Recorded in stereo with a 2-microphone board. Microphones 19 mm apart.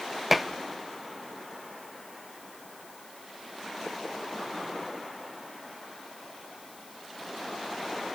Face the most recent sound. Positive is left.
turn(degrees=-10)  # may be behind; listen again after turning